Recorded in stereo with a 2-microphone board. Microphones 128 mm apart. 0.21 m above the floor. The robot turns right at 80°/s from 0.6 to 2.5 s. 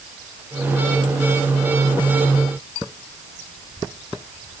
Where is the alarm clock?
I don't hear an alarm clock.